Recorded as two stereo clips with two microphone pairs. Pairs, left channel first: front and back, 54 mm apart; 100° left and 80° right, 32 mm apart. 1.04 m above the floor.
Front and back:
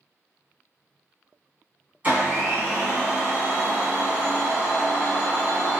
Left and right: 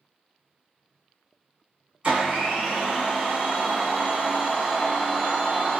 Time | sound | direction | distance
2.0 | a blender | 125° right | 1.3 m